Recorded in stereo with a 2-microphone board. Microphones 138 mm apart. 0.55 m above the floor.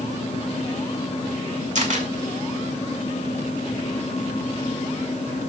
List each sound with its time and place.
1.8 s a camera shutter: 60° right (ahead or behind), 2 m